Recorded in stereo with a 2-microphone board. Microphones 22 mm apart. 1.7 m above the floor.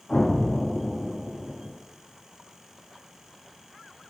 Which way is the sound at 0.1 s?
50° left (ahead or behind).